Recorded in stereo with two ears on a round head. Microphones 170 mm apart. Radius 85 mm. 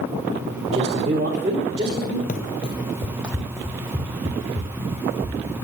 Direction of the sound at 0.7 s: 30° right (ahead or behind).